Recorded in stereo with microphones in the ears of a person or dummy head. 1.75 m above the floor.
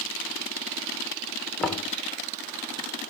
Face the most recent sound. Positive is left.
turn(degrees=0)  # may be behind; listen again after turning